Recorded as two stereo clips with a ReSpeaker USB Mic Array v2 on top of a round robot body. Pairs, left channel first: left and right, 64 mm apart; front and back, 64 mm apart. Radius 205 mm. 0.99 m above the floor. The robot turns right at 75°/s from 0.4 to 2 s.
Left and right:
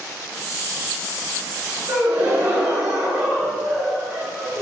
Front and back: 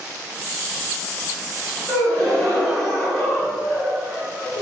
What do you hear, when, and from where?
1.9 s a gasp: 90° right, 2.0 m; by 4.6 s 80° right, 2.0 m